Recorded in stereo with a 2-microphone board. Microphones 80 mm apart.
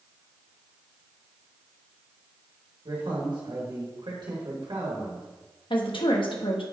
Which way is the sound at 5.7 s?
85° left.